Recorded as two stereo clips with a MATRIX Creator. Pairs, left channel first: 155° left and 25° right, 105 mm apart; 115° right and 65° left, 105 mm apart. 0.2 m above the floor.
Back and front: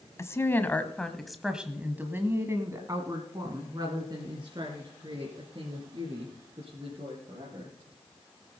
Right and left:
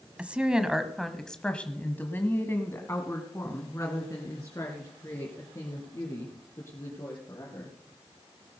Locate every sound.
0.2 s a woman speaking: 135° left, 1.2 m; by 7.7 s 55° right, 4 m